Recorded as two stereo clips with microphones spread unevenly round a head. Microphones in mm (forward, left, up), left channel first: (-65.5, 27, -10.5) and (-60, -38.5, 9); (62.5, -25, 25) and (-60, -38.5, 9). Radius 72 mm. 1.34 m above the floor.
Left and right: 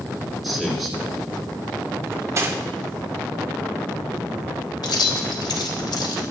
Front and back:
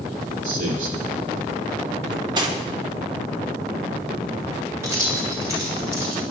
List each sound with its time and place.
0.4 s a man speaking: 175° right, 4 m
2.0 s cutlery clinking: 120° right, 2 m
4.8 s keys jangling: 115° left, 3 m